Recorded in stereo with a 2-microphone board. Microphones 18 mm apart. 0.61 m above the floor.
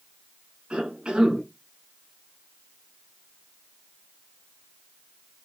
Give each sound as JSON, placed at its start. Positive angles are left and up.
{"t": 0.7, "sound": "a cough", "side_deg": -60, "distance_m": 6.5}